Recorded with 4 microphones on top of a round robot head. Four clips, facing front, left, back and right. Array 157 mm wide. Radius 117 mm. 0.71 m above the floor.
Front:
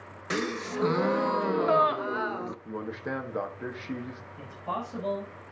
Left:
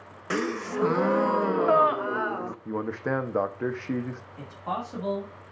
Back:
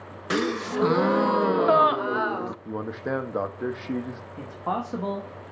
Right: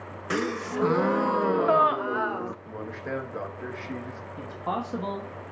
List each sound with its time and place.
0.3 s a gasp: 175° left, 0.7 m
2.6 s a man speaking: 125° left, 1.2 m
4.4 s a man speaking: 160° right, 2 m